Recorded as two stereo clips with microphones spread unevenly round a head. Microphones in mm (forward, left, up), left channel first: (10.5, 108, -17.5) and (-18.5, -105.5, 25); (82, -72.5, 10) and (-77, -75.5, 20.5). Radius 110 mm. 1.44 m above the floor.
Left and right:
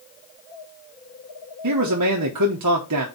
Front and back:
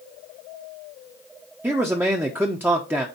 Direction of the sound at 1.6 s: 100° right.